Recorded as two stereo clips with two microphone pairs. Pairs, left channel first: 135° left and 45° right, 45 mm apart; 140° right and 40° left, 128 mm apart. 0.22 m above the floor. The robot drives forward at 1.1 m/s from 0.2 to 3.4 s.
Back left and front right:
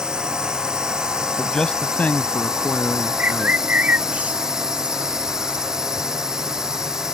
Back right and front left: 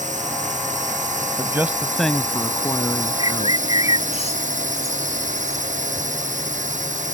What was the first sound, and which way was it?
A drone, 25° left.